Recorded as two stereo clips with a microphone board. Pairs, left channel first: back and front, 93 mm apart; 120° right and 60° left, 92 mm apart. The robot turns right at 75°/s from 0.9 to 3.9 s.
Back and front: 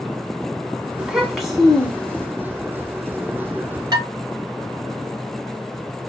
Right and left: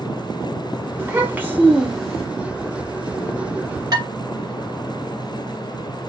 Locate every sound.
1.0 s a child speaking: 55° left, 0.6 m; by 2.3 s 150° left, 0.6 m
3.9 s dishes clattering: 35° left, 1.6 m